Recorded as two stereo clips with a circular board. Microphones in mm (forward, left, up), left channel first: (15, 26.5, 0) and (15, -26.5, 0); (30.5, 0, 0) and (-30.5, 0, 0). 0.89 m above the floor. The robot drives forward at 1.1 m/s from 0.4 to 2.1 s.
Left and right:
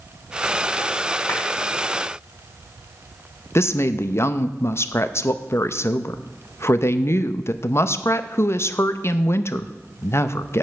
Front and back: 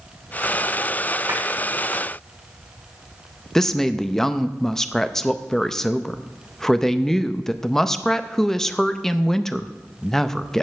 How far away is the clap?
About 6 m.